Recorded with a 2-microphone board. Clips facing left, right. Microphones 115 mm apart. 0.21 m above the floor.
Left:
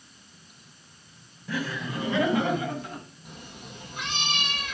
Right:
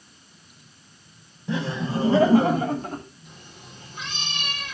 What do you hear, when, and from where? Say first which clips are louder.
1.5 s laughter: right 5 dB; 25° right (ahead or behind), 1.4 m; by 3.0 s 45° right (ahead or behind), 2 m
3.2 s a cat meowing: left 3 dB; 75° left (ahead or behind), 4 m